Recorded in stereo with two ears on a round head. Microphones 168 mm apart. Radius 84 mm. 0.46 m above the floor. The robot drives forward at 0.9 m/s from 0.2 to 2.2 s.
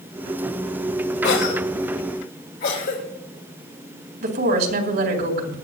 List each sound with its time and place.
1.2 s a cough: 65° left (ahead or behind), 2.5 m; by 3.0 s 50° left (ahead or behind), 3 m
4.2 s a woman speaking: 55° right (ahead or behind), 3.5 m